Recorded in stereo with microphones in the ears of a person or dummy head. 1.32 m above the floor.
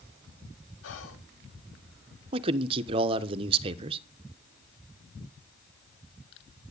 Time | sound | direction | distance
0.8 | whispering | 75° left (ahead or behind) | 3 m
2.3 | a man speaking | 30° right (ahead or behind) | 1.1 m